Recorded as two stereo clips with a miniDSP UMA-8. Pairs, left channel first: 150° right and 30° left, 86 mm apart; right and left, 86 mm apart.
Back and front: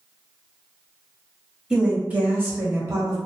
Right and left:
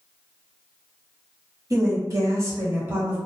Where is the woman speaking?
110° left, 1.2 m; by 3.2 s 35° left, 1.0 m.